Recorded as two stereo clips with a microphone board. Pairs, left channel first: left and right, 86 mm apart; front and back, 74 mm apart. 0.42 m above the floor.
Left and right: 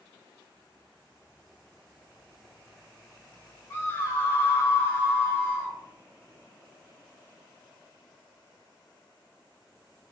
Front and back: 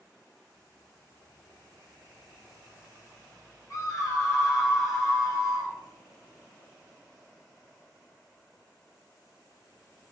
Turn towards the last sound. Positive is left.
turn(degrees=35)